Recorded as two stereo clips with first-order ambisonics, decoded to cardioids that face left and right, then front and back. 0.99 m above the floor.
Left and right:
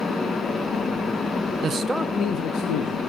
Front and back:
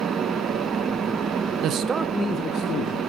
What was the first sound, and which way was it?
A man speaking, 145° right.